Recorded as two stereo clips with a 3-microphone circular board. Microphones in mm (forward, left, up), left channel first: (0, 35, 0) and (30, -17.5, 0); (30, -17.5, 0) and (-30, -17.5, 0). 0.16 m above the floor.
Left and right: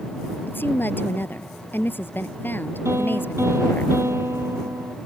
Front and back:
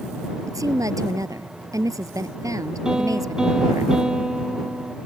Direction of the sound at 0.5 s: 175° left.